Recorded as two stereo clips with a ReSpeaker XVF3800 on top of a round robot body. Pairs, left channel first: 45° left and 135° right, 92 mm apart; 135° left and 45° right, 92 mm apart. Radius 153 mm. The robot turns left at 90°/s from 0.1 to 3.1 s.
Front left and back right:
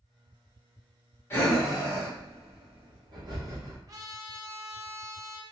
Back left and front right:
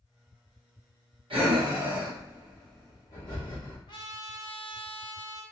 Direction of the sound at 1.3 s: 20° right.